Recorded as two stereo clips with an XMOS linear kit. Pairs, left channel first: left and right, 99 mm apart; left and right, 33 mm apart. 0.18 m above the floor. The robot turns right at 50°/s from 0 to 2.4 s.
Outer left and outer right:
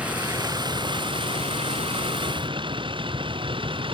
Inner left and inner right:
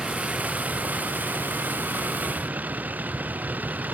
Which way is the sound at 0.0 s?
10° right (ahead or behind).